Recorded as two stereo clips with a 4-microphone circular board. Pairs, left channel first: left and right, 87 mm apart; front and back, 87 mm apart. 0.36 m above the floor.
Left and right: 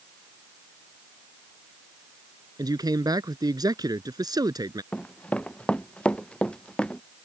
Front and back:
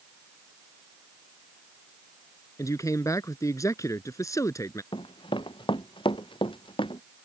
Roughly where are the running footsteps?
Ahead.